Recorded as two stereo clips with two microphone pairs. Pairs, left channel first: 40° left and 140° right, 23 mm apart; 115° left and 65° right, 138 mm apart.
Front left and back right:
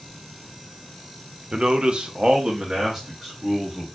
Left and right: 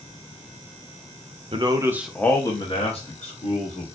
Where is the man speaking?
100° right, 0.6 m; by 3.9 s 140° left, 1.4 m.